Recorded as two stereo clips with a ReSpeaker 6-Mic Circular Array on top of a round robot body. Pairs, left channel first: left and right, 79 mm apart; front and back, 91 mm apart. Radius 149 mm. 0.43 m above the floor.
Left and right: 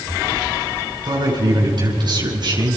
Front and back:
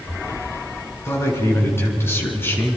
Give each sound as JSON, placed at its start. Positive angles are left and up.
{"t": 1.1, "sound": "a man speaking", "azimuth_deg": -60, "distance_m": 6.0}